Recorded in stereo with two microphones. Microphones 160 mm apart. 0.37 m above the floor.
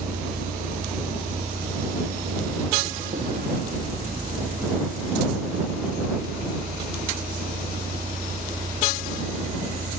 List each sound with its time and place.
0.0 s a vehicle: 60° right (ahead or behind); by 10.0 s 75° right (ahead or behind)